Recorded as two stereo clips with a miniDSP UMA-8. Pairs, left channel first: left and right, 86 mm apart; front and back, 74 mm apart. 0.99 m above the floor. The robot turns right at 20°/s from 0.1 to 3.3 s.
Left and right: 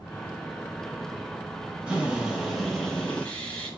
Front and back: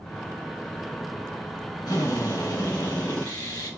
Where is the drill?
15° right, 6 m; by 3.7 s 15° left, 6 m.